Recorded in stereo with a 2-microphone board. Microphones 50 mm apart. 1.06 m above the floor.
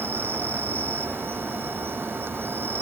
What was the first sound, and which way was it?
An insect, 45° right (ahead or behind).